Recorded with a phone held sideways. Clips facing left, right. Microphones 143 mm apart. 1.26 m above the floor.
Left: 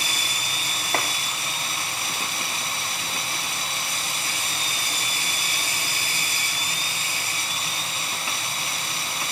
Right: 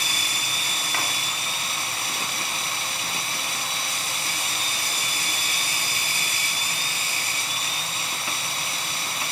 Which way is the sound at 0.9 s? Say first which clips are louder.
Left 5 dB; 45° left (ahead or behind).